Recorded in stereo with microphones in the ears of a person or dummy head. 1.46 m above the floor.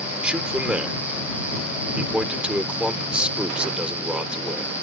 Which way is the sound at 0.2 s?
5° right (ahead or behind).